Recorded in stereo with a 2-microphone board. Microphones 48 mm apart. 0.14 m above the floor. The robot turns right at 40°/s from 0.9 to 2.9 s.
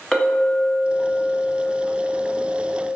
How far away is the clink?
About 0.8 m.